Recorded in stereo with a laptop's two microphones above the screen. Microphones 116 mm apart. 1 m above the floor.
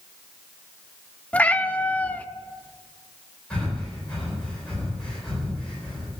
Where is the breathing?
10° left (ahead or behind), 3.5 m.